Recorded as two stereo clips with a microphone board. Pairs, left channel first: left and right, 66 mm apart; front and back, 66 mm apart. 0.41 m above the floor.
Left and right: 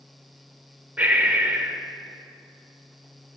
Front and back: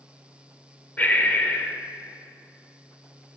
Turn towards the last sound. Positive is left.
turn(degrees=-40)